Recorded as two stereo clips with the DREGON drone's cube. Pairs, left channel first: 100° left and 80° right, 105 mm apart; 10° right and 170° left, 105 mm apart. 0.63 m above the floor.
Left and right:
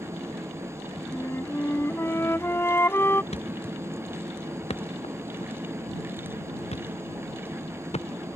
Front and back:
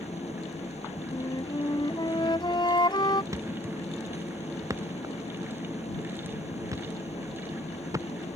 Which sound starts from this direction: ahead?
An engine running, at 0.0 s.